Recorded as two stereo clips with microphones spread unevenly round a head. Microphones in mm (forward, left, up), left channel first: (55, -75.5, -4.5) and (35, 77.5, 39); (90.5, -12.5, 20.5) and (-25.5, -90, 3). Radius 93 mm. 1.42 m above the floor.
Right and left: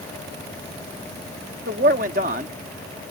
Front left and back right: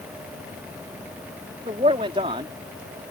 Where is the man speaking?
145° left.